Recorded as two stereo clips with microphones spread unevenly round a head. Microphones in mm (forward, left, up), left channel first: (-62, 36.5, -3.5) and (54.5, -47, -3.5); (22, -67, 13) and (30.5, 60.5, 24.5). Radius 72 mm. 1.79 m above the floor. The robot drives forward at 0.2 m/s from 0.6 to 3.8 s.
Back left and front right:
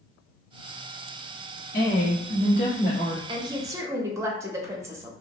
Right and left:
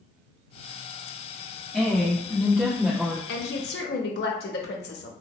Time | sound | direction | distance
1.7 | a woman speaking | 175° left | 0.9 m
3.3 | a woman speaking | 95° right | 0.5 m